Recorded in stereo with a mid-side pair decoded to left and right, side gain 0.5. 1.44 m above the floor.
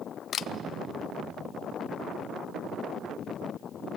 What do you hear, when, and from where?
0.3 s a camera shutter: 55° left, 0.5 m